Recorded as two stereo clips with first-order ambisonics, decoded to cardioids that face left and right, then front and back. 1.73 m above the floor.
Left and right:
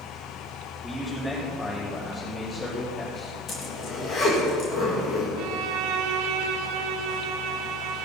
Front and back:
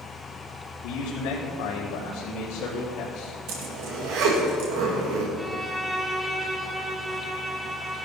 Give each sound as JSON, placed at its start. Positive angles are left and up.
{"t": 0.8, "sound": "a man speaking", "azimuth_deg": 5, "distance_m": 4.0}
{"t": 3.5, "sound": "a zipper", "azimuth_deg": 150, "distance_m": 2.5}
{"t": 5.4, "sound": "a violin", "azimuth_deg": -95, "distance_m": 1.1}